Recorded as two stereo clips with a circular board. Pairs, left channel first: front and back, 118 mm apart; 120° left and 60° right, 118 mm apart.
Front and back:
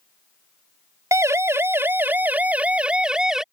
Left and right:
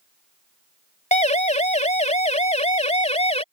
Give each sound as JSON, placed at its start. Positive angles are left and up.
{"t": 1.1, "sound": "a siren", "azimuth_deg": 115}